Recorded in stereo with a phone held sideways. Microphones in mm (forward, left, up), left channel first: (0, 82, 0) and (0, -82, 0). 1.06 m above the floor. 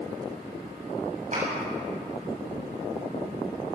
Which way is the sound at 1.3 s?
45° right (ahead or behind).